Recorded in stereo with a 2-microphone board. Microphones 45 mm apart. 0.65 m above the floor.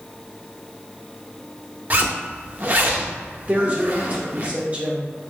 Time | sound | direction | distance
1.9 | a zipper | 40° right (ahead or behind) | 0.6 m
3.5 | a woman speaking | 30° right (ahead or behind) | 0.9 m